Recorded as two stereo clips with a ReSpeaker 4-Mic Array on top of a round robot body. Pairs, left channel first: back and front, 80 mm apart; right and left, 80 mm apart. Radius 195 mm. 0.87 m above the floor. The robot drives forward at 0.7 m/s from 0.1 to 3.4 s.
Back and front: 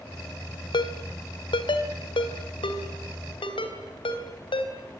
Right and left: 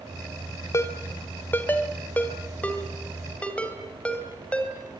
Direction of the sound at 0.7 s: 150° right.